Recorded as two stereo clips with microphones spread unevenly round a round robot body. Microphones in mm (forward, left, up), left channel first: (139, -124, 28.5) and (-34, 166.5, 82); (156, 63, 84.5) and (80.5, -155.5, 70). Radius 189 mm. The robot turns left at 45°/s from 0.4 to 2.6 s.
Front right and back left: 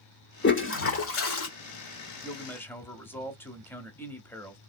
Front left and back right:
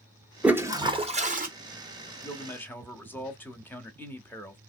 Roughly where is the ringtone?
I don't hear a ringtone.